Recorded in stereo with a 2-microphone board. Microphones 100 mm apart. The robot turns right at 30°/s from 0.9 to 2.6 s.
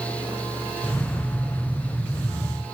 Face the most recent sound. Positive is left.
No sound to turn to.